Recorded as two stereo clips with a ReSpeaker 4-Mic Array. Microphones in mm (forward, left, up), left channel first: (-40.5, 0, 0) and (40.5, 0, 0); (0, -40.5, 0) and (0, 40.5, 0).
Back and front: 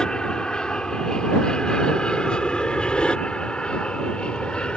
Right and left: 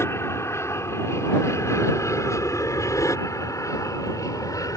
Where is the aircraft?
105° right.